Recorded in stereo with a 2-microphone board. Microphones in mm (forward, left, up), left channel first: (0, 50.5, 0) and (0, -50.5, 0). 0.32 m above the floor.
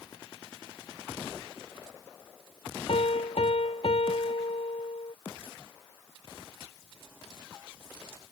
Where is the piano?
80° left.